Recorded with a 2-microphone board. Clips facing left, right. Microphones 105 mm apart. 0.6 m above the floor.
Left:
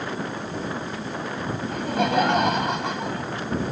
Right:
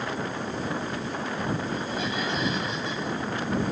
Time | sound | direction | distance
1.7 | laughter | 70° left (ahead or behind) | ?